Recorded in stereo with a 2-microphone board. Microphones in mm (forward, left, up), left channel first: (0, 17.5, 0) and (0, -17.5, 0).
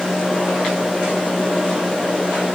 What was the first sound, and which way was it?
Only background noise.